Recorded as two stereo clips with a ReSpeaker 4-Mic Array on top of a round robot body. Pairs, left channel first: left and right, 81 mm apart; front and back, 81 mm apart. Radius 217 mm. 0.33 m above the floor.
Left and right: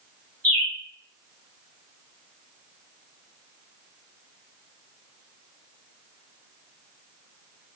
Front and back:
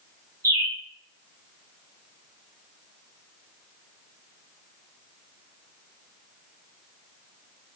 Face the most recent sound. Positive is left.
turn(degrees=165)